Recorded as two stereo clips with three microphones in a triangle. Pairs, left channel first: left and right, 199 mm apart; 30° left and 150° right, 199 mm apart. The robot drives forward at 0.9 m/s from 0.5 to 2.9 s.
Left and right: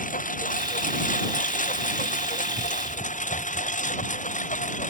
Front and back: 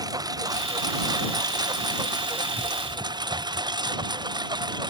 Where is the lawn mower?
140° left.